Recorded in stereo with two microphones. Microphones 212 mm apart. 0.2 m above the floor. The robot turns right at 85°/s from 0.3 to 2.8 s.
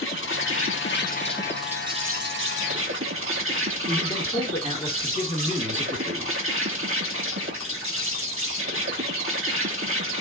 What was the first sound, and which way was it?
An insect, 65° left.